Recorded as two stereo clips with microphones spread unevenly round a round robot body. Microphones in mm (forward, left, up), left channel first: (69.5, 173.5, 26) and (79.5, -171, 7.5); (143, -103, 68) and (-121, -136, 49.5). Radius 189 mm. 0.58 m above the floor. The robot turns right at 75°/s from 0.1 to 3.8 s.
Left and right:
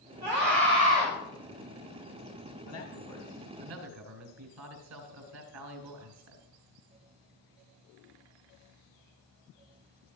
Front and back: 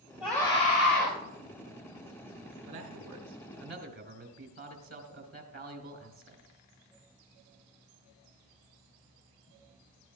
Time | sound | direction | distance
0.2 | a scream | 90° right | 5 m
2.7 | a man speaking | 140° left | 4 m